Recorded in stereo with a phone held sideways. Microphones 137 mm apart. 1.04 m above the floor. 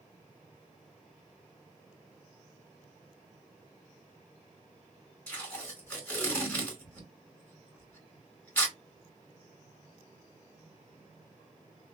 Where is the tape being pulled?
10° left (ahead or behind), 2 m.